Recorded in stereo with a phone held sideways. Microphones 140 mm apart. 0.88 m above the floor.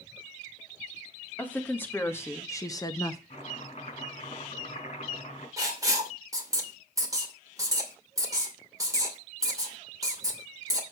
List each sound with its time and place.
1.4 s a woman speaking: 15° left (ahead or behind), 2.5 m; by 3.2 s 25° left (ahead or behind), 0.9 m
3.3 s chopping: 50° left (ahead or behind), 5 m
5.6 s writing: 25° right (ahead or behind), 2.5 m